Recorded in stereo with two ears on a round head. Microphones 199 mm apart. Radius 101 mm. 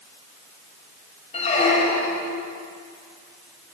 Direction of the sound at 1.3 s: 35° left (ahead or behind).